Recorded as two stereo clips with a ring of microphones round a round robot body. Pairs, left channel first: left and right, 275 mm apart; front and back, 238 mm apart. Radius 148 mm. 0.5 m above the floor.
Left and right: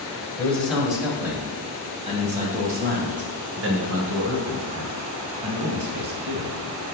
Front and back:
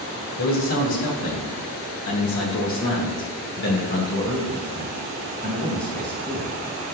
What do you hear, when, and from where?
0.4 s a man speaking: 5° left, 2 m; by 6.5 s 80° right, 3 m